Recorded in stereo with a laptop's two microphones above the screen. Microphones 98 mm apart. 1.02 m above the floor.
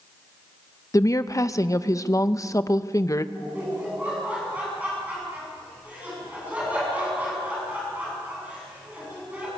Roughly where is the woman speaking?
Left.